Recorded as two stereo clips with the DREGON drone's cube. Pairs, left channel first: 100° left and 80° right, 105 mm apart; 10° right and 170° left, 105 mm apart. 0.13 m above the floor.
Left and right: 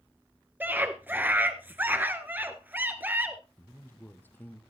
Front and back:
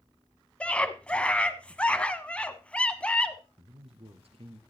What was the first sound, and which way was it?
A scream, 65° right.